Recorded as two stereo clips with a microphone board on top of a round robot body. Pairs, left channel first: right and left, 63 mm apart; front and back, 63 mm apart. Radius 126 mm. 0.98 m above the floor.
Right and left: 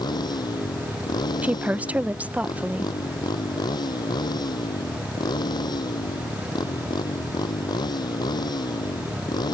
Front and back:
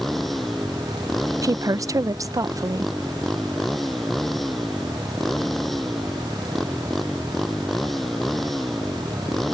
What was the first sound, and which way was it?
A motorcycle, 85° right.